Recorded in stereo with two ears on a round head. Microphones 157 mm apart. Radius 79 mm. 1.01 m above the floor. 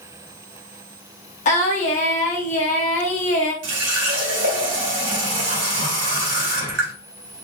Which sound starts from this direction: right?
A running tap, at 3.6 s.